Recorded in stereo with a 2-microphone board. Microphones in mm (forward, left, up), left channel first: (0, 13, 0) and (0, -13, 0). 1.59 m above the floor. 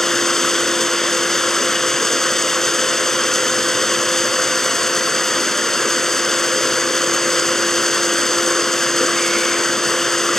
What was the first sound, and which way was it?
Running water, 15° left (ahead or behind).